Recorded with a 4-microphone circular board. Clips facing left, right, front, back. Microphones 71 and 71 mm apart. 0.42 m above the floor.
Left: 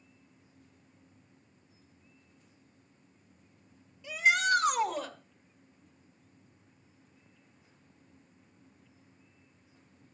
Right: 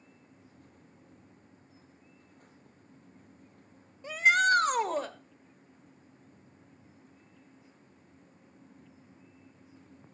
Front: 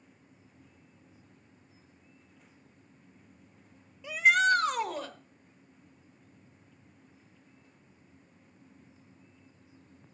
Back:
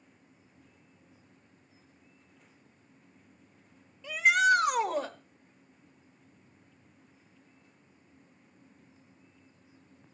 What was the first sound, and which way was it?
A shout, 80° right.